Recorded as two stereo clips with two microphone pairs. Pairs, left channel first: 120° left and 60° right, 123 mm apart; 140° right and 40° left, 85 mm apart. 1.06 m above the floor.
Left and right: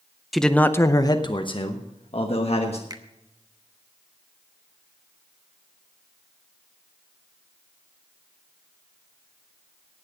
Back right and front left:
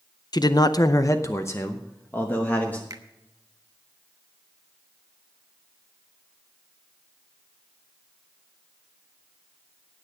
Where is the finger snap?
5° right, 1.0 m.